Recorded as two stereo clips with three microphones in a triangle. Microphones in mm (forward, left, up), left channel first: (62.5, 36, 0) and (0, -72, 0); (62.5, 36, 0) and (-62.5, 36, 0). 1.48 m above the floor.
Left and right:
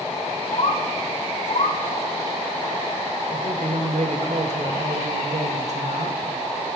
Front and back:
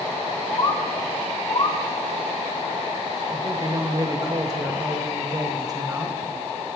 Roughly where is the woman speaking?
Behind right.